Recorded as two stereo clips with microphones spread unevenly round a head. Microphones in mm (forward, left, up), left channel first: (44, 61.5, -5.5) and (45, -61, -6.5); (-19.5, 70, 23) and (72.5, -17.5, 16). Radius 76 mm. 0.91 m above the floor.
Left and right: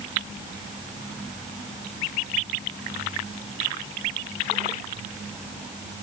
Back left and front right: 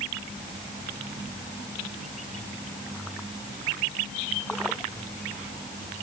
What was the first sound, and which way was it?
Only background noise.